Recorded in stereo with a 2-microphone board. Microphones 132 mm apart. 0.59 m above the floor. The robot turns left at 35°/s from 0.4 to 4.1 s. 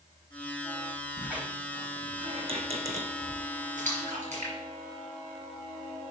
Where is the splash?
75° right (ahead or behind), 4 m; by 5.8 s 60° right (ahead or behind), 4 m.